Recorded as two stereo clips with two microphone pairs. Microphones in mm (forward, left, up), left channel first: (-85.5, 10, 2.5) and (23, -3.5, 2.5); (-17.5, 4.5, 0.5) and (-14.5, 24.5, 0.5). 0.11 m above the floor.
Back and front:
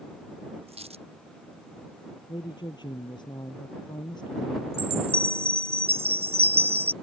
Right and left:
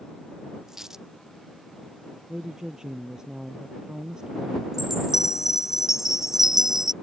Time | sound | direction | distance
0.7 | a dropped coin | 20° left | ?
2.3 | a woman speaking | 135° left | ?
4.7 | a chime | 15° left | ?